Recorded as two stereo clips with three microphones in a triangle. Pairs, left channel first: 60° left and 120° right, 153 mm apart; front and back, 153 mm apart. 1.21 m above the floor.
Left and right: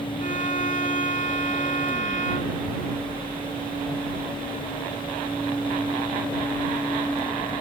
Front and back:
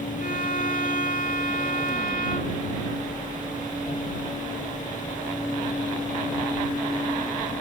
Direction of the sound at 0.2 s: 25° left.